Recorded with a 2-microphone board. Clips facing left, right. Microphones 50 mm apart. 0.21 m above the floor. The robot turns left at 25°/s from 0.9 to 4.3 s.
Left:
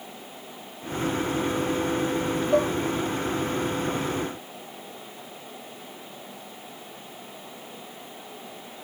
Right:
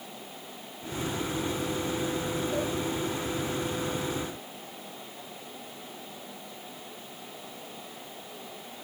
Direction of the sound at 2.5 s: 60° left (ahead or behind).